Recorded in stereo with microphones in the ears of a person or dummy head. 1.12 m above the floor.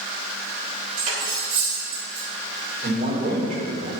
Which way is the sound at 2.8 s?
40° right (ahead or behind).